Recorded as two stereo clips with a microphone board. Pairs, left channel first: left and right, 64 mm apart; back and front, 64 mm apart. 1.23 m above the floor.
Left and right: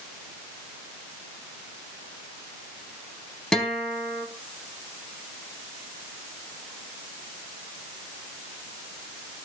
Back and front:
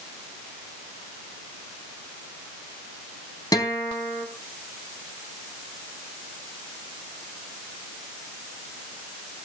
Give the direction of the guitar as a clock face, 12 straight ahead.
6 o'clock.